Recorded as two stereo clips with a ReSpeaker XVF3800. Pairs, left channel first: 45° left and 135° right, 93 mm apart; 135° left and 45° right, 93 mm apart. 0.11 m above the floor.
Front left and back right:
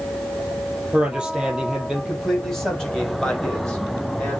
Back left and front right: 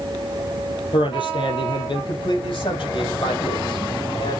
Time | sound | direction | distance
0.9 | a man speaking | 145° left | 3.5 m